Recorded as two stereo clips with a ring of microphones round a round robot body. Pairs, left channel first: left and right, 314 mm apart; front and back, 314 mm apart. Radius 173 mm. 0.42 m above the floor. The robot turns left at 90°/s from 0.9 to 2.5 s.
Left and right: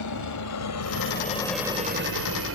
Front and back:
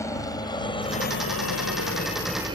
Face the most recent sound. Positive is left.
turn(degrees=-110)